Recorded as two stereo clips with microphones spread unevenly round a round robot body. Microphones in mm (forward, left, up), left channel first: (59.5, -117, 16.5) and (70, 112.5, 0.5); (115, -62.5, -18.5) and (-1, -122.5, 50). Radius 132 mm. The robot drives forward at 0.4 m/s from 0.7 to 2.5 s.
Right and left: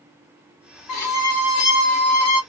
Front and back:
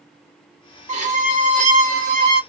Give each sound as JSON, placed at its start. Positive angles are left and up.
{"t": 0.9, "sound": "a violin", "azimuth_deg": -115, "distance_m": 1.3}